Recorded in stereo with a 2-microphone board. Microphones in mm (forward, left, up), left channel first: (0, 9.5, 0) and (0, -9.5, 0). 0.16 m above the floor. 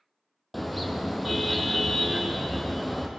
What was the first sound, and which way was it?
A car horn, centre (ahead or behind).